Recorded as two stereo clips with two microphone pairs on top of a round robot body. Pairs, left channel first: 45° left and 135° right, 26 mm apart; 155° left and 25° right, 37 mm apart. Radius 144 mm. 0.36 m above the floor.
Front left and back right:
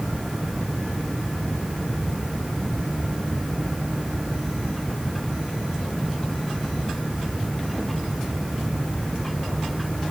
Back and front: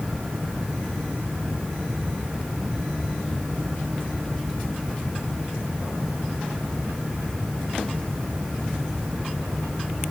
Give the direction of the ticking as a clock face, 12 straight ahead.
No ticking in this recording.